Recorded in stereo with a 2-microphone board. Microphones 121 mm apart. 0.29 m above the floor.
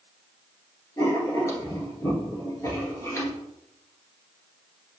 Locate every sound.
1.0 s writing: 25° left (ahead or behind), 1.9 m